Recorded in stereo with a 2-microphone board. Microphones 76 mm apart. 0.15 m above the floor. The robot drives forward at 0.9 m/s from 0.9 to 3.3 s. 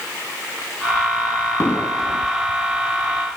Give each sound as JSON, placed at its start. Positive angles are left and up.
{"t": 1.6, "sound": "an explosion", "side_deg": 35, "distance_m": 6.0}